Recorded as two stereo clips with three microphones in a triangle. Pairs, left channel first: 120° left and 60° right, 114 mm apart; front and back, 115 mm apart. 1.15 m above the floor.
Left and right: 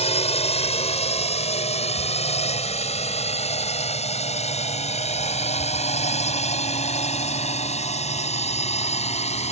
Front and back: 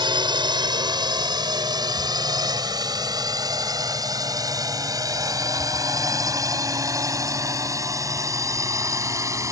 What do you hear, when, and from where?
0.0 s a drone: 135° left; by 9.5 s 120° left